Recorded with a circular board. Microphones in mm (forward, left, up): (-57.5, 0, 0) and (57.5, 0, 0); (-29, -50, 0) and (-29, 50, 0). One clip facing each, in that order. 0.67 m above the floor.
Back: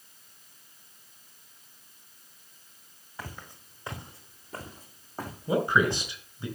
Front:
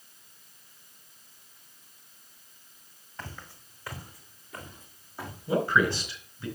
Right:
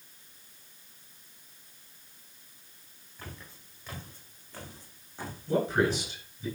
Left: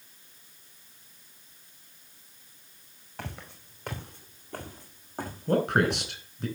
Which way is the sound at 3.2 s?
100° left.